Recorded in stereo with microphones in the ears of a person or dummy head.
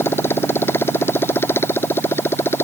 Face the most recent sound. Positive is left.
turn(degrees=10)  # may be behind; listen again after turning